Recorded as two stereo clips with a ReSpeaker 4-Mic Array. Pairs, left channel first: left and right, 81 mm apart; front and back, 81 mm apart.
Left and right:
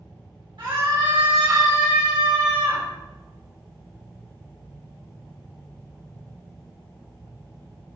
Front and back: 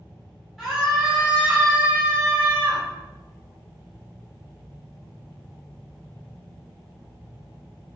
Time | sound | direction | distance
0.6 | a scream | 95° right | 2 m